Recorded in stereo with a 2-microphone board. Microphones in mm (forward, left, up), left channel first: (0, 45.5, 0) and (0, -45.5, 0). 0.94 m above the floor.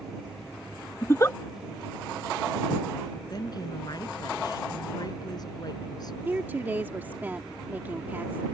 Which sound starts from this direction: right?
A woman speaking, at 6.2 s.